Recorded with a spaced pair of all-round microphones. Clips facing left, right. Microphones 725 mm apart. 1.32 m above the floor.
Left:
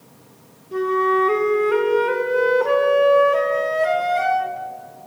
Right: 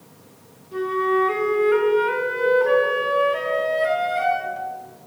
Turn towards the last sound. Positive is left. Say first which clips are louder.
# left 2 dB
turn(degrees=70)  # may be behind; listen again after turning